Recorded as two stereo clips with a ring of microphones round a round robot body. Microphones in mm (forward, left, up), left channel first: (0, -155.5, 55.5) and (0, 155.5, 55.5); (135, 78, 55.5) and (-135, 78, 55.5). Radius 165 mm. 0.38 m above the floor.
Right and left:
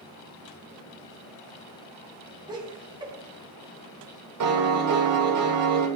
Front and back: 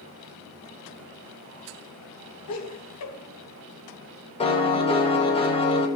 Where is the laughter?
15° left, 3.5 m.